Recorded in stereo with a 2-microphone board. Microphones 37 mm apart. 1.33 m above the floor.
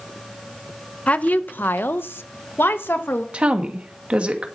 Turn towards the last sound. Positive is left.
turn(degrees=-35)  # may be behind; listen again after turning